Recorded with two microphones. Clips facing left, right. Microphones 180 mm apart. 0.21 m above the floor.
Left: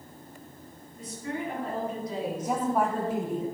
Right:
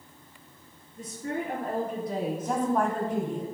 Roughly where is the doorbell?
I don't hear a doorbell.